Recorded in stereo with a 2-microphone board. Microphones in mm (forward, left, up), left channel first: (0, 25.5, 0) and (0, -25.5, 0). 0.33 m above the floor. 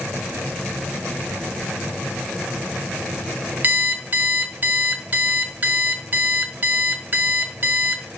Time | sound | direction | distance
3.6 | an alarm clock | 35° right (ahead or behind) | 0.8 m